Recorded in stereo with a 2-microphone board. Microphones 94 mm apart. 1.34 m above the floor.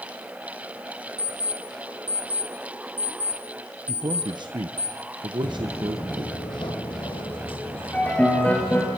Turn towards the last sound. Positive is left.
turn(degrees=15)  # may be behind; listen again after turning